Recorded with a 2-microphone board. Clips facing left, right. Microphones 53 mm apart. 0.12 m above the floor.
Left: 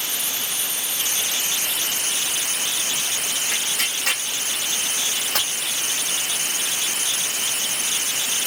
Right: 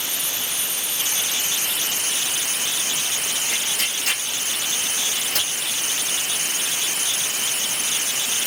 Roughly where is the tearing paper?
Left.